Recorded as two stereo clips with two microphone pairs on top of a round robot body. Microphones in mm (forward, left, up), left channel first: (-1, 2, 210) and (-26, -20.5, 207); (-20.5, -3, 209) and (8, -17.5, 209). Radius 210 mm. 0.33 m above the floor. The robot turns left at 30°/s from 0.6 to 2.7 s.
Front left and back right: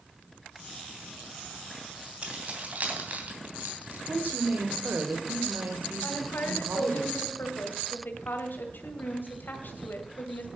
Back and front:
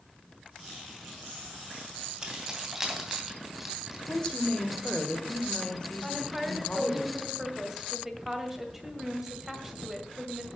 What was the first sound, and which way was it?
Keys jangling, 90° right.